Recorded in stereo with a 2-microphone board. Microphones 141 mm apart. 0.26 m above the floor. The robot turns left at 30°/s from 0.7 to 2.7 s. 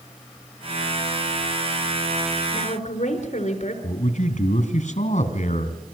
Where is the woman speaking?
60° left (ahead or behind), 4 m; by 3.7 s 55° left (ahead or behind), 4 m.